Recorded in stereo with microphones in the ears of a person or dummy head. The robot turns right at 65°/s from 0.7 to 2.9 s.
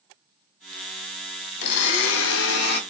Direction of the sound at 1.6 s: 55° left.